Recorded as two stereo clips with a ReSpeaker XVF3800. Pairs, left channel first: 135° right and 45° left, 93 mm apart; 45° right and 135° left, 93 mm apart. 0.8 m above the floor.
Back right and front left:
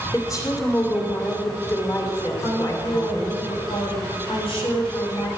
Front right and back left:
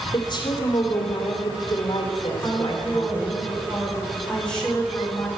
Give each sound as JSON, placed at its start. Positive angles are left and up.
{"t": 0.1, "sound": "a woman speaking", "azimuth_deg": -80, "distance_m": 2.5}
{"t": 2.4, "sound": "a woman speaking", "azimuth_deg": -125, "distance_m": 4.0}